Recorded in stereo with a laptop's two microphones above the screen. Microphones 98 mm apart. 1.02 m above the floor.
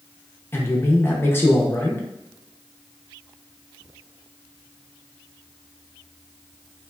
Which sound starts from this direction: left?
A man speaking, at 0.5 s.